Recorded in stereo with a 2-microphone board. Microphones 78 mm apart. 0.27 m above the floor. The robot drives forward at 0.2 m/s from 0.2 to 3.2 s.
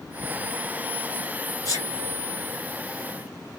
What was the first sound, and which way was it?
A sneeze, 45° left (ahead or behind).